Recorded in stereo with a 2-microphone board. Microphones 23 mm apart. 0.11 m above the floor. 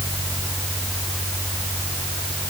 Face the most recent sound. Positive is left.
No sound to turn to.